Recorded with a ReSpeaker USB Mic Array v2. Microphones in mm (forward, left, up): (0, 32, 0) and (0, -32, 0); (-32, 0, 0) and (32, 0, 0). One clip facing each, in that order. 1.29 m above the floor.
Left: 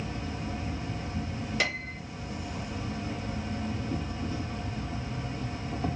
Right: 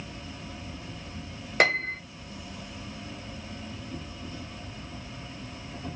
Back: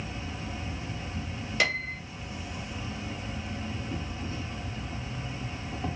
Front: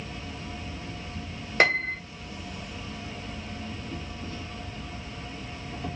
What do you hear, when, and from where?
0.0 s an insect: 110° left, 1.9 m
1.6 s a piano: 50° right, 0.9 m